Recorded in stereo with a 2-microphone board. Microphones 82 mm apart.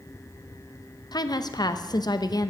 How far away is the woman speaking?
About 0.7 m.